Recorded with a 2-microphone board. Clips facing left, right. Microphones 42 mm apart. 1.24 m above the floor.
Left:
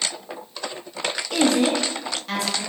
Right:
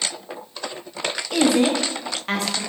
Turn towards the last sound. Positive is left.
turn(degrees=-55)  # may be behind; listen again after turning